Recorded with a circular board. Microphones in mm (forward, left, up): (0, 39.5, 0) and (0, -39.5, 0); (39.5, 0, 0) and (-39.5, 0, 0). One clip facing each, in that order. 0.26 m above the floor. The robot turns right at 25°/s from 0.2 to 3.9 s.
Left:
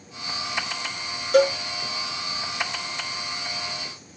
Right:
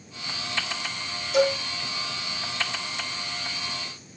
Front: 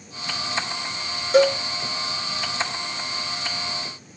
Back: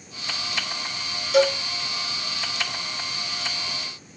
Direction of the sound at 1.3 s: 55° left.